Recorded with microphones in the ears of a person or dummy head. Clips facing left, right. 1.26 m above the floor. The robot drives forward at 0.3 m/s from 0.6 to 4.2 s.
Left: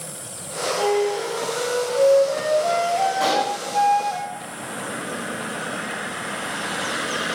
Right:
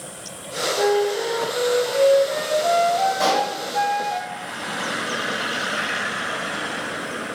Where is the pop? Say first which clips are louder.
Right 1 dB; 55° right (ahead or behind), 2.5 m; by 3.5 s 50° right (ahead or behind), 3 m.